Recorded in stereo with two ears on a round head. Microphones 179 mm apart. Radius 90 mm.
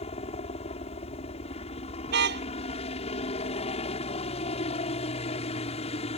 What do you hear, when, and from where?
0.0 s a helicopter: 30° left (ahead or behind)
2.1 s a car horn: 55° right (ahead or behind)